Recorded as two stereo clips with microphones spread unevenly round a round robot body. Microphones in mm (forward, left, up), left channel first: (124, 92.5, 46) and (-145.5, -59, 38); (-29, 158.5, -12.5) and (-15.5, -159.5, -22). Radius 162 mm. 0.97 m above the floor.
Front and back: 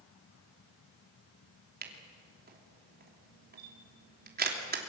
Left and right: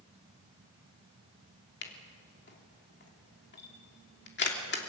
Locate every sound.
1.8 s a camera shutter: 150° left, 3 m